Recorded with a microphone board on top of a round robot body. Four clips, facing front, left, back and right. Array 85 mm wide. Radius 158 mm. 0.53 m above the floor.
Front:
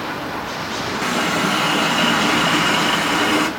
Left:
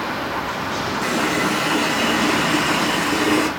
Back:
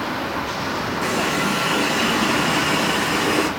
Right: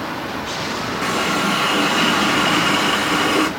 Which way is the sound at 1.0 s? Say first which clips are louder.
Right 1 dB, front 3 dB; 35° right.